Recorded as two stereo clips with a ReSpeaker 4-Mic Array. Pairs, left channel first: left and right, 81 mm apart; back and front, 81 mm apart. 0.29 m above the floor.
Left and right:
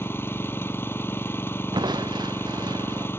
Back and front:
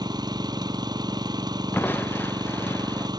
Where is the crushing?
115° right.